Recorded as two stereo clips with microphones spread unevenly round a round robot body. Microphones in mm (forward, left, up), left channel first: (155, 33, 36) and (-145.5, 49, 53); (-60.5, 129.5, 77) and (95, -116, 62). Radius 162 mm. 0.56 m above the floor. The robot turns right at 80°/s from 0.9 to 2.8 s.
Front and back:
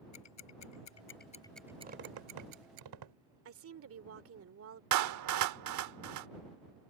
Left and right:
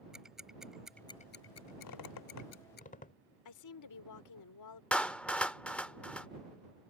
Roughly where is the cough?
No cough in this recording.